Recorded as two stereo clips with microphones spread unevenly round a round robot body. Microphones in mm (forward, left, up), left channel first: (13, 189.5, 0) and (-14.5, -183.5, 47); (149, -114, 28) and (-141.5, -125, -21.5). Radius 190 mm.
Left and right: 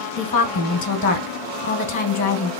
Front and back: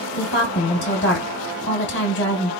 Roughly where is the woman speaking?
Ahead left.